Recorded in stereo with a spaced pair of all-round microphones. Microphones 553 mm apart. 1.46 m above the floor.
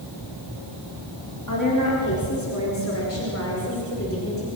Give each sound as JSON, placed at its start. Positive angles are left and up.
{"t": 1.5, "sound": "a woman speaking", "side_deg": 35, "distance_m": 4.0}